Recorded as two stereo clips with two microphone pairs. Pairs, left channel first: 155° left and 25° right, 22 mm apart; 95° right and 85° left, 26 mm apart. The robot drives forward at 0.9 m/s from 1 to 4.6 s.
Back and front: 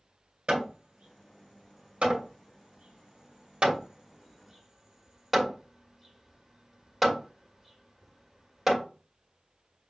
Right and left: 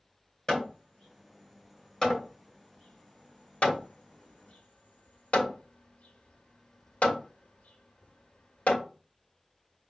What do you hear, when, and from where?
0.5 s hammering: 20° right, 3 m; by 8.9 s 110° right, 1.1 m